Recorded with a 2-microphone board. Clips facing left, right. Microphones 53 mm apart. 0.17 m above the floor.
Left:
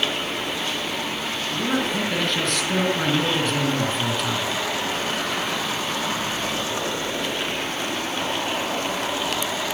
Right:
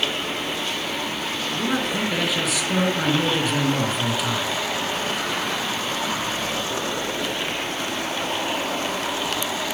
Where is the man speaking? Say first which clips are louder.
Left 1 dB; 5° right (ahead or behind), 2.5 m.